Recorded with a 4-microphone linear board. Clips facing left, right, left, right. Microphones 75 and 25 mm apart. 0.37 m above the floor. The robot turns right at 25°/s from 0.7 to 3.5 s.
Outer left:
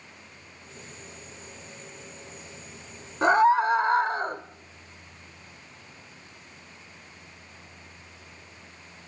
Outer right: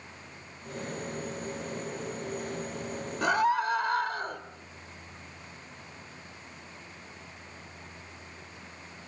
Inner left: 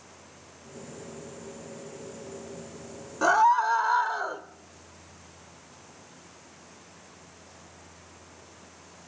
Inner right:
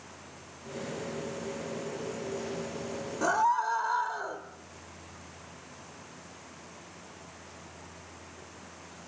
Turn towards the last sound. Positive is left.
turn(degrees=30)  # may be behind; listen again after turning